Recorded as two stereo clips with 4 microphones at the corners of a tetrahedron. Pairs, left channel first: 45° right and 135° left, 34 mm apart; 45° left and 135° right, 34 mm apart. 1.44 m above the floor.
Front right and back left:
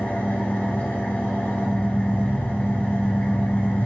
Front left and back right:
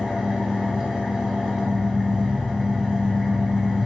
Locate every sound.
0.0 s an engine running: 60° right, 1.0 m